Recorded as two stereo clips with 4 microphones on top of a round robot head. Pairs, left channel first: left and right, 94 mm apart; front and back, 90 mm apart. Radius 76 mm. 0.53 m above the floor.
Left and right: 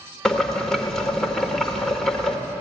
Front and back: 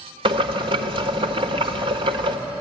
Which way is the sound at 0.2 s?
175° left.